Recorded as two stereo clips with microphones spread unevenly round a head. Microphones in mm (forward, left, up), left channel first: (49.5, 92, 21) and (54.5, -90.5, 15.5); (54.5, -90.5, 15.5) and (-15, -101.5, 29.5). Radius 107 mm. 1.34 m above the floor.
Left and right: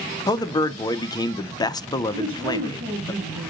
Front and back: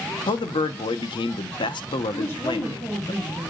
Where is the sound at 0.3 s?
20° left, 0.8 m.